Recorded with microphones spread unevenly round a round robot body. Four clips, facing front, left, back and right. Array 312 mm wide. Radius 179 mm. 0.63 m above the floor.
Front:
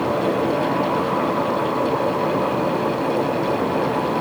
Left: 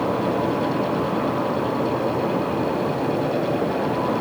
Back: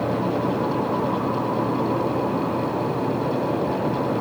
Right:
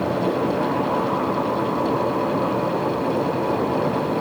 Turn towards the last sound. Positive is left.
No sound to turn to.